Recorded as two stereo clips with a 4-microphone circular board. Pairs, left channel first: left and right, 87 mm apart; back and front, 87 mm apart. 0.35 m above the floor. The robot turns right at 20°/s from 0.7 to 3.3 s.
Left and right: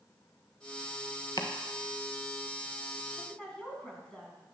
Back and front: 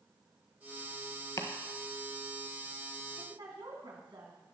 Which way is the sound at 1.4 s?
130° left.